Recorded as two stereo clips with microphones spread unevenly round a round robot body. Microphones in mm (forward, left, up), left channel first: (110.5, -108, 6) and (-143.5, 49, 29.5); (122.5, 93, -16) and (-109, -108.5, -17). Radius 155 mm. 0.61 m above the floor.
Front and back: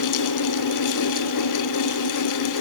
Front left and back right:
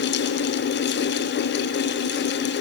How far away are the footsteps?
I don't hear footsteps.